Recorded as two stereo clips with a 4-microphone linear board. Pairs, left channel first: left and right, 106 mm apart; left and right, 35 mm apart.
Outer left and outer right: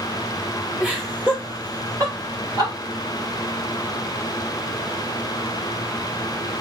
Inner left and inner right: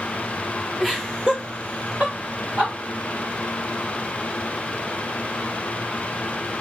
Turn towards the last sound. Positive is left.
turn(degrees=-40)  # may be behind; listen again after turning